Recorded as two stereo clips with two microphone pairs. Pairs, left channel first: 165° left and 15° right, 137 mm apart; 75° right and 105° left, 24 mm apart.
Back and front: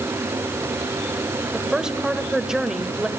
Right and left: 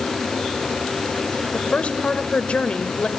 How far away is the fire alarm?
No fire alarm in this recording.